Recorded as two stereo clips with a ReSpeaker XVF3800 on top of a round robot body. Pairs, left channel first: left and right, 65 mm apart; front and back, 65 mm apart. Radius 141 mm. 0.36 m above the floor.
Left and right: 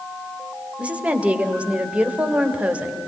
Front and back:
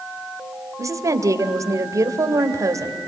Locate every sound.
0.8 s a woman speaking: 160° right, 2.5 m